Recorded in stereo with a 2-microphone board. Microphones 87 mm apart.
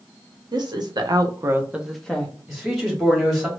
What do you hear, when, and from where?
0.5 s a woman speaking: 55° right (ahead or behind), 0.9 m; by 2.3 s 20° left (ahead or behind), 0.6 m
2.5 s a man speaking: centre (ahead or behind), 1.5 m